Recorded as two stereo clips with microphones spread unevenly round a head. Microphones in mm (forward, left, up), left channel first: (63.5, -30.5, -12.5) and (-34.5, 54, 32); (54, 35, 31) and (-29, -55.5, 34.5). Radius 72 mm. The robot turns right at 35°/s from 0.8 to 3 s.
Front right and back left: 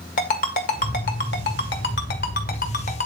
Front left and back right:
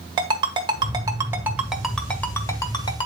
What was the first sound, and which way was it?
A ringtone, 80° right.